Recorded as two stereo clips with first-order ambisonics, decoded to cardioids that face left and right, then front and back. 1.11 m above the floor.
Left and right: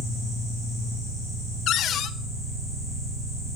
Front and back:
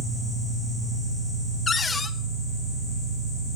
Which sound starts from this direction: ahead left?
A cupboard door, at 1.7 s.